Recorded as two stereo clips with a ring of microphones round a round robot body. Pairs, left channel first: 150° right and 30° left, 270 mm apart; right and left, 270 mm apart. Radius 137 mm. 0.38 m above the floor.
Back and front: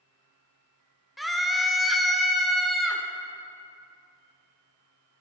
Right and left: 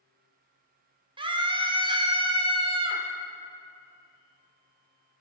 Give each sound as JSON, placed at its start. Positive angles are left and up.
{"t": 1.2, "sound": "a scream", "azimuth_deg": 120, "distance_m": 0.9}